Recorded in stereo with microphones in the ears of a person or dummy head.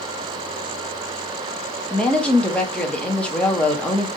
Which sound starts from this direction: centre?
A woman speaking, at 1.9 s.